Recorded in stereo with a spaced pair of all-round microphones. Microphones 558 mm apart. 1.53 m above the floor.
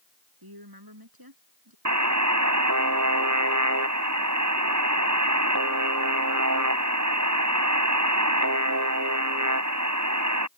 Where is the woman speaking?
40° right (ahead or behind); by 1.8 s 35° right (ahead or behind).